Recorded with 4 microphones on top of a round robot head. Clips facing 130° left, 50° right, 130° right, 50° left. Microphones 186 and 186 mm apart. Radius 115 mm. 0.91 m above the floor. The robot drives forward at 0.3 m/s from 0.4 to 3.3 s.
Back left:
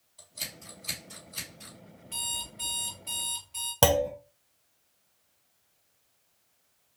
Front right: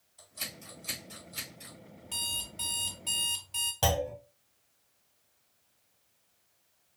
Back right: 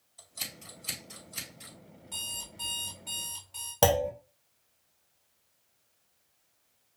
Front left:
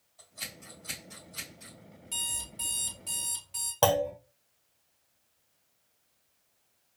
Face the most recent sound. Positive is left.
turn(degrees=155)